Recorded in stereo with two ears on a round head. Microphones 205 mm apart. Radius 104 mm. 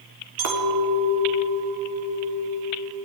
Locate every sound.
0.4 s a clink: 65° right (ahead or behind), 3.5 m